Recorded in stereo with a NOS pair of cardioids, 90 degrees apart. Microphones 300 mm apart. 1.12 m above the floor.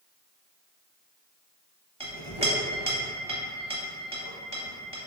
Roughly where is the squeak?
No squeak in this recording.